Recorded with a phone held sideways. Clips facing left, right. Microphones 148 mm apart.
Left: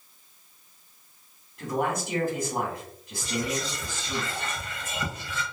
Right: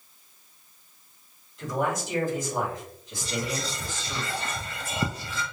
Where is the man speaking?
60° left (ahead or behind), 1.9 m.